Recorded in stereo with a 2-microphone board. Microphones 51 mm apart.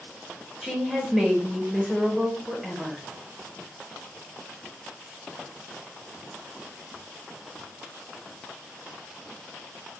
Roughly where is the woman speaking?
Centre.